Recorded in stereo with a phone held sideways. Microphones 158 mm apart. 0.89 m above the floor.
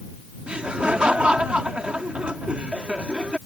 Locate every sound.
0.5 s laughter: 5° right (ahead or behind)